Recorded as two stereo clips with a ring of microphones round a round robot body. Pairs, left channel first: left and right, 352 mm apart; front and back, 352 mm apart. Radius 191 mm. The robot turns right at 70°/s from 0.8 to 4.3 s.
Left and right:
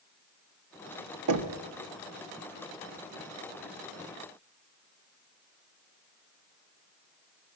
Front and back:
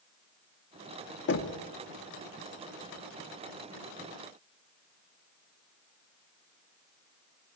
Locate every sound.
1.3 s knocking: 60° right, 1.2 m; by 1.6 s 40° right, 1.2 m